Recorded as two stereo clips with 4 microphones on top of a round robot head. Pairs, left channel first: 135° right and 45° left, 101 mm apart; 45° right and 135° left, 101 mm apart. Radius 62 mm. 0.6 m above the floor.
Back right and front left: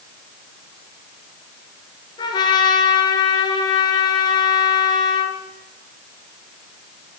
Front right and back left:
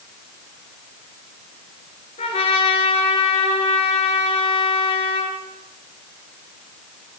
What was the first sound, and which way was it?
A trumpet, 85° right.